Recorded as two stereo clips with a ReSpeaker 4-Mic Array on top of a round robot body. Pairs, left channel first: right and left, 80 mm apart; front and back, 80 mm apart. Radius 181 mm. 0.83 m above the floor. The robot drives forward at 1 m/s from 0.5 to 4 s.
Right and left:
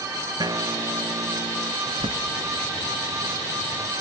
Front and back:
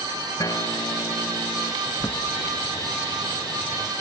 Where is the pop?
No pop in this recording.